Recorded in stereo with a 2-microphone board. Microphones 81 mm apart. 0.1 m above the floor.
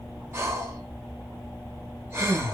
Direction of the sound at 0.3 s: 30° right (ahead or behind).